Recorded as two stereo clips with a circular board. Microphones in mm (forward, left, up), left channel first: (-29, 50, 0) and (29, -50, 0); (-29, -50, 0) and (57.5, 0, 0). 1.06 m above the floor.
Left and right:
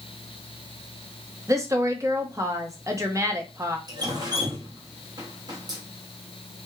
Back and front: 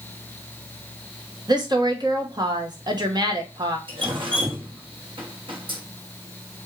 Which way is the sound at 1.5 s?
5° right.